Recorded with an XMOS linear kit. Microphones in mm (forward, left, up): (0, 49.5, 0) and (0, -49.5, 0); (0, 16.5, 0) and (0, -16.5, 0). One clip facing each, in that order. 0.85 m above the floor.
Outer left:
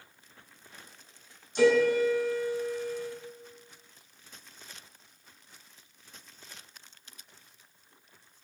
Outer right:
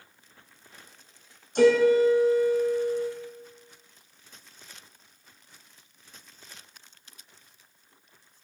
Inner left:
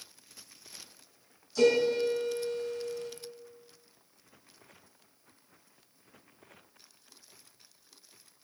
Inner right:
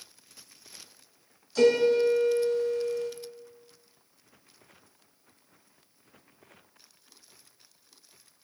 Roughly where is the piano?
Right.